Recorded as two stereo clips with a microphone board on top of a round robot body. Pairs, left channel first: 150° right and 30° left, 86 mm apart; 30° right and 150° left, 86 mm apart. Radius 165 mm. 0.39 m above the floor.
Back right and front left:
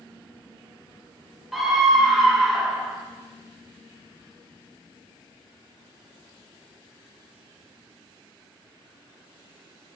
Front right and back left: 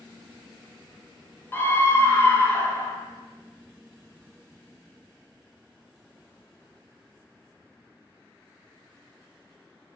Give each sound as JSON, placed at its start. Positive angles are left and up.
{"t": 1.5, "sound": "a scream", "azimuth_deg": -55, "distance_m": 0.8}